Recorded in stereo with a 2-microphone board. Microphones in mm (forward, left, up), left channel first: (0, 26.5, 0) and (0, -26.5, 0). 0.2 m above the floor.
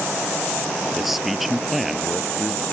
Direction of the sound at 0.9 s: 5° right (ahead or behind).